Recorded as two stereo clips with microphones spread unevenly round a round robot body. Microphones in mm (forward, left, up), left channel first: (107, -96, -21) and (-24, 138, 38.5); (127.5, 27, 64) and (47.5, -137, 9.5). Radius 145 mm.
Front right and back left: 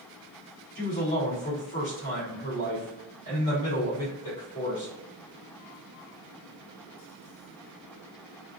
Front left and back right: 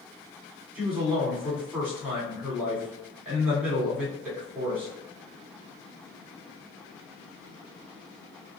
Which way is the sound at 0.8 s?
45° right.